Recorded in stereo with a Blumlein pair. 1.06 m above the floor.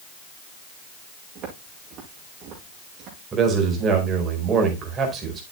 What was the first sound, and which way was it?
Footsteps, 35° right.